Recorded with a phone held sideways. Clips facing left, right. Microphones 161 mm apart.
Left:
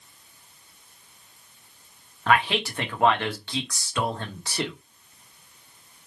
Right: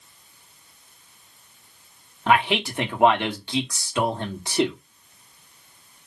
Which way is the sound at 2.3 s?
20° right (ahead or behind).